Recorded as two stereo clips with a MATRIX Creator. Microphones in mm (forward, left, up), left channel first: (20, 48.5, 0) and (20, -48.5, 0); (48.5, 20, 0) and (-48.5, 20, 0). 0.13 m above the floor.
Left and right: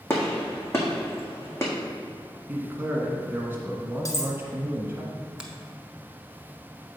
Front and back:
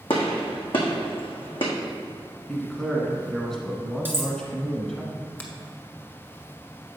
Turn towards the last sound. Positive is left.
turn(degrees=-30)